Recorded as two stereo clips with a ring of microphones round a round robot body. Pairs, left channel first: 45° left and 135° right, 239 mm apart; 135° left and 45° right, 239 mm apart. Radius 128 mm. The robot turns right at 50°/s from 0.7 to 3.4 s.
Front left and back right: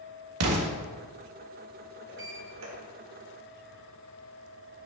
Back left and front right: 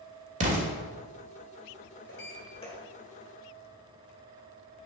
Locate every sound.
0.4 s an explosion: 105° right, 1.4 m
2.1 s a sliding door: 175° left, 2.5 m; by 2.8 s 150° right, 2.5 m